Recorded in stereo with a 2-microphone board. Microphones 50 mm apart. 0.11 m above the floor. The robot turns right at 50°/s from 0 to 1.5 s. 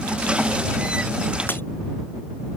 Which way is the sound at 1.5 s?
40° left (ahead or behind).